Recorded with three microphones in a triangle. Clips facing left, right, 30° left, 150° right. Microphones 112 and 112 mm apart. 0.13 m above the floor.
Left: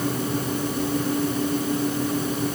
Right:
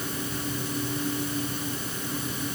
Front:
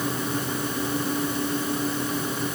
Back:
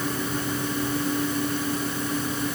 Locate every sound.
Only background noise.